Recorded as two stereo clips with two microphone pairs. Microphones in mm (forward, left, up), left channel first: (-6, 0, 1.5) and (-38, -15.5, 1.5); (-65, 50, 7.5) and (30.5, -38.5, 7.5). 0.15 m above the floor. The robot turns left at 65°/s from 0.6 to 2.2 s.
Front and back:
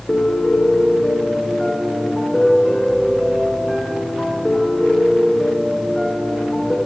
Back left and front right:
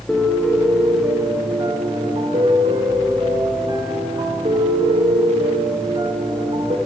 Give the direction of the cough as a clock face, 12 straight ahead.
I don't hear a cough.